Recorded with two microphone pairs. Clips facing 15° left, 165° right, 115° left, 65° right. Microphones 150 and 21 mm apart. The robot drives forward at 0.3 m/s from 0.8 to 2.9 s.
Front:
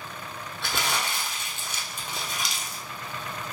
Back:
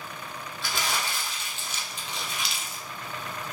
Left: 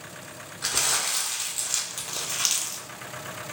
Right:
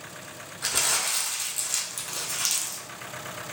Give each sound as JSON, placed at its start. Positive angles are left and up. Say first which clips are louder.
{"t": 0.6, "sound": "crumpling", "louder": "front 2 dB, even", "azimuth_deg": 35, "distance_m": 1.1}